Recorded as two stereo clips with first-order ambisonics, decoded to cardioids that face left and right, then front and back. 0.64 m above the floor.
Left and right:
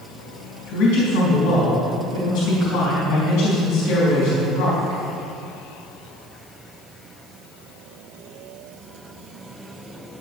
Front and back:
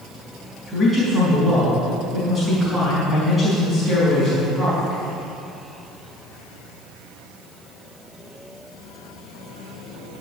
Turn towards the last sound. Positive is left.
turn(degrees=95)